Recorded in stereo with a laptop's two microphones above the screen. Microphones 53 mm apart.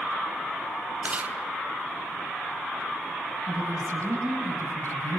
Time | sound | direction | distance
1.0 | chewing | 30° right (ahead or behind) | 2.5 m
3.5 | a woman speaking | 80° right | 6.5 m